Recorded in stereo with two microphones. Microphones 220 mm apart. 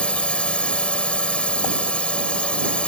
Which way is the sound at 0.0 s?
5° left (ahead or behind).